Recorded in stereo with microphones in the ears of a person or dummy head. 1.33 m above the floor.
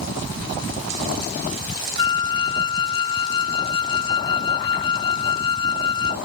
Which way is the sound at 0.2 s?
75° right (ahead or behind).